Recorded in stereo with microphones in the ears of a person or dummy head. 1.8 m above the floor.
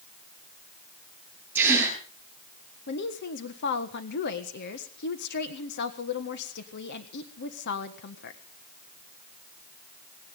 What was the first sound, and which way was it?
A gasp, 10° right (ahead or behind).